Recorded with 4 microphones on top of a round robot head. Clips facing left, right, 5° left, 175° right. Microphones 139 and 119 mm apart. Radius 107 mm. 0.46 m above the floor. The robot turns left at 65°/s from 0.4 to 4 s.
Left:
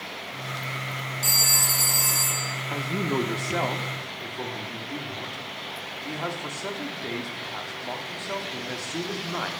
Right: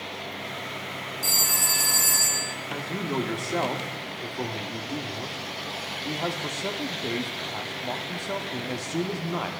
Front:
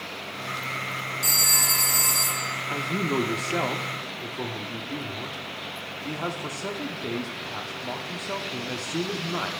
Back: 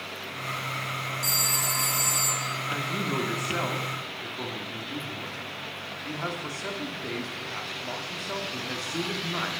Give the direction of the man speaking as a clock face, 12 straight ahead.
10 o'clock.